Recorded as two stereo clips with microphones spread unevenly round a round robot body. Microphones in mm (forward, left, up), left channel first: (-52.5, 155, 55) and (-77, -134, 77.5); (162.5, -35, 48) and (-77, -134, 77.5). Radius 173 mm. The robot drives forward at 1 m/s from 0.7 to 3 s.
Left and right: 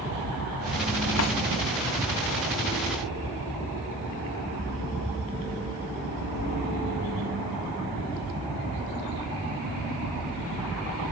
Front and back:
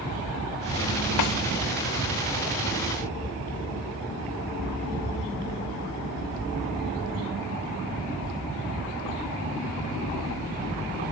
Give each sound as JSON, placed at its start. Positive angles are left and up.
{"t": 1.2, "sound": "a snare drum", "azimuth_deg": 35, "distance_m": 0.7}